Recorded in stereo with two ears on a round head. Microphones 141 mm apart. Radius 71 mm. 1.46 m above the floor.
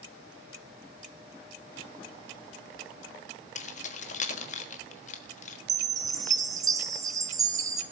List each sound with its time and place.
3.5 s keys jangling: 50° left (ahead or behind), 1.4 m
5.7 s a chime: 25° right (ahead or behind), 1.7 m